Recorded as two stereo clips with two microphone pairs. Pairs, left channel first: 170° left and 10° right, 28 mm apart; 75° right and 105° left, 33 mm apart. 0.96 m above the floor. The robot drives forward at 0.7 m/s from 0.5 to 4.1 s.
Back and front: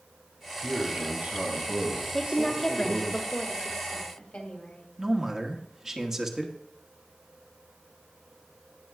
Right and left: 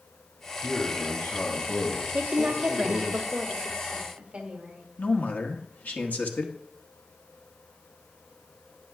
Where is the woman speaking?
95° left, 1.1 m; by 4.8 s 155° left, 1.8 m.